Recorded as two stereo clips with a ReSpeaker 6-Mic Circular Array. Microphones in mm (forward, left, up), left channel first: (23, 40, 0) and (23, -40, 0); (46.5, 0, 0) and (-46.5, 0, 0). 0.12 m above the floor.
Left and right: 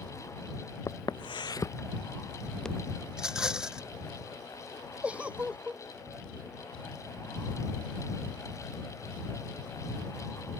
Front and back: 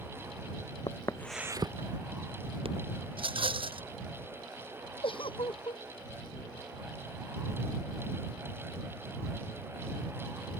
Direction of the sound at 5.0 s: 15° right.